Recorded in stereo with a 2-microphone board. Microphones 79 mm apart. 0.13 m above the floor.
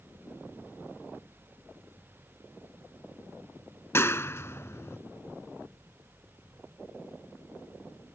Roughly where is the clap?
Left.